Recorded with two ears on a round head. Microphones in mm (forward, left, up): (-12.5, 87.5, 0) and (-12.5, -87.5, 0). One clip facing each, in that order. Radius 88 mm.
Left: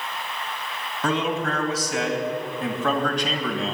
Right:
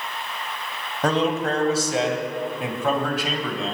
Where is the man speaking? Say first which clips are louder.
Right 3 dB; 40° right (ahead or behind), 3.5 m; by 3.7 s centre (ahead or behind), 3.5 m.